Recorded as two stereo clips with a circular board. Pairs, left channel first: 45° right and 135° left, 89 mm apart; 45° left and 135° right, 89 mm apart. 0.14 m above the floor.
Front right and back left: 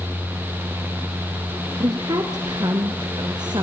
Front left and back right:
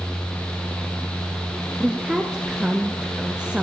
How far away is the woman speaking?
About 1.9 m.